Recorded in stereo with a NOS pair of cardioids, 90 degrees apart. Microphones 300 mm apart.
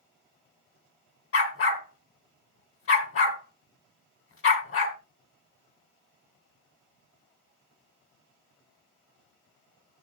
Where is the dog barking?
50° left, 2.5 m.